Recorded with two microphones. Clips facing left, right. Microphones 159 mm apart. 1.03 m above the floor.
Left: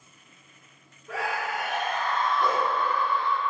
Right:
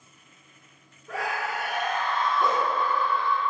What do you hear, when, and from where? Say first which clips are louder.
1.1 s a scream: even; 5° right (ahead or behind), 0.8 m; by 3.4 s 70° left (ahead or behind), 1.1 m
2.4 s a dog barking: right 1 dB; 20° right (ahead or behind), 0.7 m